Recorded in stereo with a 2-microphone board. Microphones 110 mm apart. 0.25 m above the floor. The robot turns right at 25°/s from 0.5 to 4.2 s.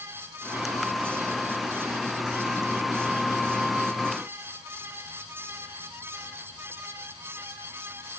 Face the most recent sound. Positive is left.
No sound to turn to.